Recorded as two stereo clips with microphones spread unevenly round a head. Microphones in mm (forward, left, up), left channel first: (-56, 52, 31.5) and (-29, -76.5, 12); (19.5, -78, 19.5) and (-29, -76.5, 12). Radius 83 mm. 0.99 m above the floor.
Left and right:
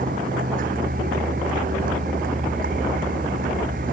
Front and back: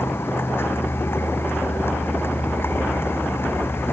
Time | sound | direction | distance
0.0 | a vehicle | 40° right | ?